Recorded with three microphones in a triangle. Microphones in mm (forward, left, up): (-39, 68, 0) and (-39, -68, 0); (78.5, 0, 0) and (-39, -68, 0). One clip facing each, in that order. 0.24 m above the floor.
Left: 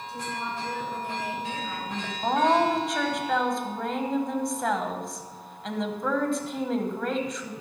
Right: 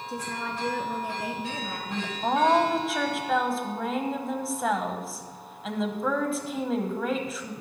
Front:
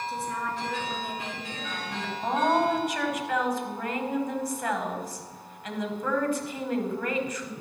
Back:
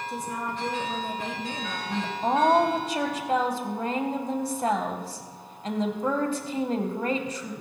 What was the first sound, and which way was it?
A woman speaking, 80° right.